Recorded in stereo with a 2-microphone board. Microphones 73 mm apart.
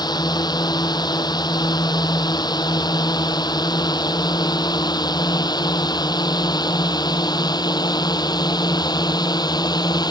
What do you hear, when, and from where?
0.0 s a drone: 70° left (ahead or behind)